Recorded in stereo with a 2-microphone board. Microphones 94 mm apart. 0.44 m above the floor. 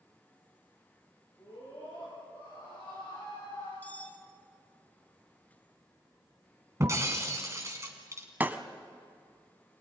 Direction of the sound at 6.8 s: 30° right (ahead or behind).